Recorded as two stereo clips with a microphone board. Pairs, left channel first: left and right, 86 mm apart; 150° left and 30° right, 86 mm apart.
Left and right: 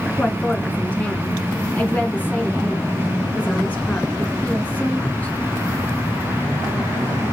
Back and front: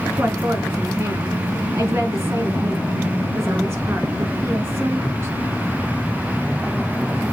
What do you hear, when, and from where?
0.2 s a woman speaking: 20° left, 2.5 m